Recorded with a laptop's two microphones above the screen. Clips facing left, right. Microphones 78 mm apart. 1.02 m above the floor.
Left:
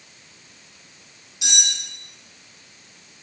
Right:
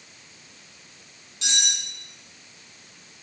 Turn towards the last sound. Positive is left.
turn(degrees=10)  # may be behind; listen again after turning